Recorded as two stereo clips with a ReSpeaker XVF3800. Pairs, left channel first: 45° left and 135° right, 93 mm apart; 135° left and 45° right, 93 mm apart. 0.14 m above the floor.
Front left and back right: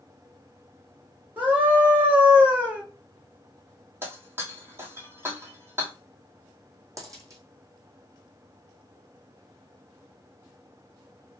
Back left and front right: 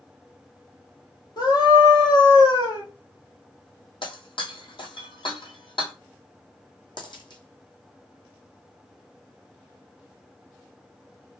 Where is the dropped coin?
170° left, 1.6 m.